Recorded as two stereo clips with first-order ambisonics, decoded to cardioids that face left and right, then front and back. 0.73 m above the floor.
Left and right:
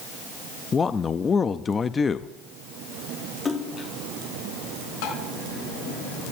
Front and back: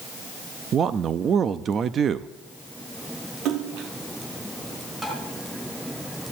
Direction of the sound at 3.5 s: 160° left.